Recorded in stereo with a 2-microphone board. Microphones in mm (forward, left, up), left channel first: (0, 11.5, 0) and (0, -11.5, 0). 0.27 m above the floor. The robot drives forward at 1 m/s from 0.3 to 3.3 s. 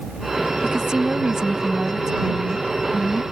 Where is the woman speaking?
40° right (ahead or behind); by 3.2 s 20° right (ahead or behind).